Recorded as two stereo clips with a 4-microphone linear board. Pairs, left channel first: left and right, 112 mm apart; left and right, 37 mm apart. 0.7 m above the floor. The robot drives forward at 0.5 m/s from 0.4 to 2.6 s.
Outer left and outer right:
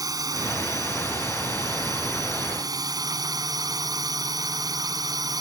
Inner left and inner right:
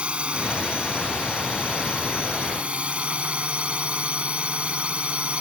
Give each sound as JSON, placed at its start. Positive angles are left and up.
{"t": 0.0, "sound": "a drone", "side_deg": -35}